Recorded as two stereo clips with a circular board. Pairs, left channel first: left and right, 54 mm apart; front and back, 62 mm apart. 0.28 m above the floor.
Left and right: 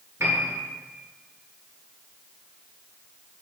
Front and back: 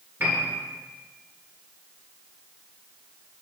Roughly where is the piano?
Behind right.